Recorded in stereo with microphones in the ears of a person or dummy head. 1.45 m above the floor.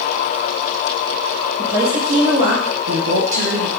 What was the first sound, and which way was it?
A woman speaking, 20° right (ahead or behind).